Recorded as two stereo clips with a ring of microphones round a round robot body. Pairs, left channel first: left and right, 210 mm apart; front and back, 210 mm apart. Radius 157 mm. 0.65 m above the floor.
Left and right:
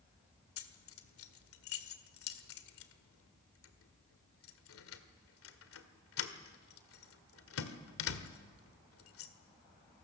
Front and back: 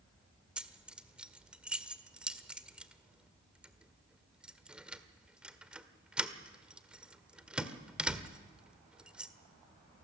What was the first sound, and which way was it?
Keys jangling, 95° left.